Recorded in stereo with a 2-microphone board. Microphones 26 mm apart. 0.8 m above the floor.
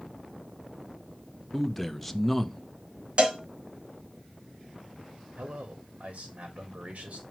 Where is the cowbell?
45° right (ahead or behind), 1.8 m.